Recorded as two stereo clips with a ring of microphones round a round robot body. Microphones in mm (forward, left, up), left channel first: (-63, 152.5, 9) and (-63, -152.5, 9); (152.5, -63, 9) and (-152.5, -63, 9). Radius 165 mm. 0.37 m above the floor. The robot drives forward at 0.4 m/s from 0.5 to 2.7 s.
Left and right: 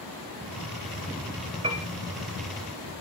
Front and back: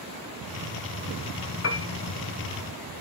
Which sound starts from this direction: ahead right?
A piano, at 1.6 s.